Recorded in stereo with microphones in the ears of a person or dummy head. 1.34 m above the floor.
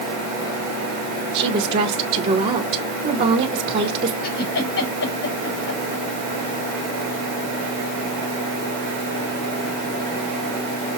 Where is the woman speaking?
35° right (ahead or behind), 1.2 m.